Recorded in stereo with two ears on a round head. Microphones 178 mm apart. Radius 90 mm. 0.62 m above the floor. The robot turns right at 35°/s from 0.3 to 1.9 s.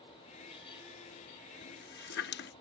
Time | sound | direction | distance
1.6 | a running tap | 50° left (ahead or behind) | ?